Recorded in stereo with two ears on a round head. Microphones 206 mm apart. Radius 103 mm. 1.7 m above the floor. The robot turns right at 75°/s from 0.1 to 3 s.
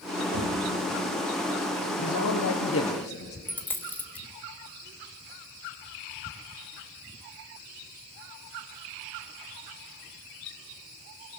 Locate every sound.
0.3 s knocking: 70° right (ahead or behind), 4 m; by 0.7 s 45° right (ahead or behind), 4 m
2.0 s a man speaking: 55° left, 1.6 m; by 3.4 s 135° left, 1.6 m
3.5 s a dropped coin: 10° left (ahead or behind), 1.2 m